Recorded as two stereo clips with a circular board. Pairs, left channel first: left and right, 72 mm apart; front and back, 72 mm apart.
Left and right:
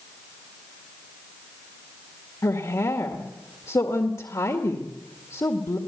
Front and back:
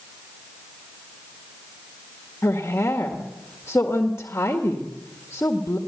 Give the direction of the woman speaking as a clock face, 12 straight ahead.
10 o'clock.